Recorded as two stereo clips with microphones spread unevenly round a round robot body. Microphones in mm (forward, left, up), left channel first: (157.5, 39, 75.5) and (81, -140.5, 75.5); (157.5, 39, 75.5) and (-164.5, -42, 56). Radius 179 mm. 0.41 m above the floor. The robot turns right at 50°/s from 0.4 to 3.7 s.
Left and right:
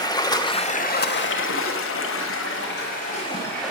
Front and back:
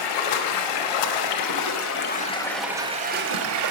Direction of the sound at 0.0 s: 5° right.